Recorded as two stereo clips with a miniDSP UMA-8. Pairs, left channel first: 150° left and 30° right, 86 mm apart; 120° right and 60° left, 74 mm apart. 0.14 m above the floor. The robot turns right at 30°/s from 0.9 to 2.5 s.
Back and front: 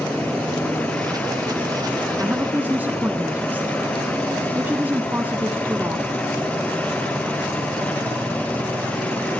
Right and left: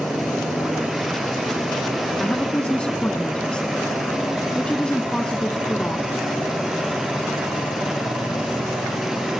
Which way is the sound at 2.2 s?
70° right.